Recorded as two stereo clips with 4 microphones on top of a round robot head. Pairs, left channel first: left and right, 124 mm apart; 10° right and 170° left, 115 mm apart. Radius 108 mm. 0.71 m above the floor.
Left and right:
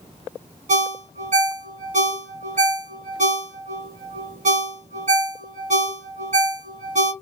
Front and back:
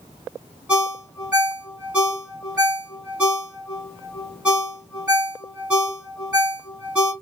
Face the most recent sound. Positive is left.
turn(degrees=-110)